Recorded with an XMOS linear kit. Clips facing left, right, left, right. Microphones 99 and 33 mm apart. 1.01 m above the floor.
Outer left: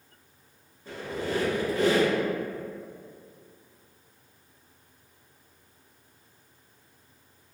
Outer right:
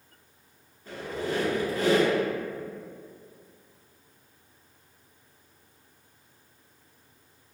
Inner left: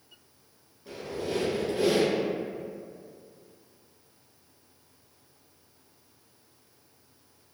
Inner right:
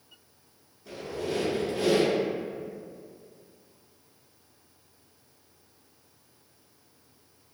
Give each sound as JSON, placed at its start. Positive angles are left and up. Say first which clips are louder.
{"t": 0.8, "sound": "a squeak", "louder": "even, inner right 1 dB", "side_deg": 15, "distance_m": 1.6}